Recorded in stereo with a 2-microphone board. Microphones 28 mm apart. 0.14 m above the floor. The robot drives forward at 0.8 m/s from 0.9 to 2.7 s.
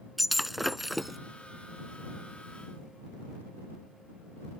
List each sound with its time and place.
0.2 s breaking glass: 5° right (ahead or behind)